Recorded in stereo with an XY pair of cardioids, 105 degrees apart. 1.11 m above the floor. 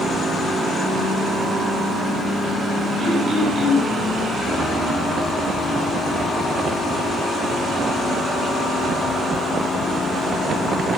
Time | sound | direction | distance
3.0 | throat clearing | 45° right | 6.5 m